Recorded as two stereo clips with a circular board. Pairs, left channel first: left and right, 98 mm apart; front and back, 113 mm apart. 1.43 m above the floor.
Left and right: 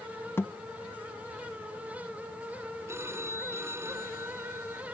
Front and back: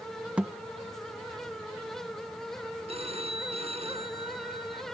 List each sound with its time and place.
0.4 s a thud: 115° left
2.9 s a phone ringing: 150° right